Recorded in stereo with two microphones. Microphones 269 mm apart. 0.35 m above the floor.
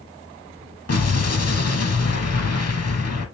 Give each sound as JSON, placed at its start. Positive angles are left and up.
{"t": 0.9, "sound": "an explosion", "side_deg": 65, "distance_m": 0.6}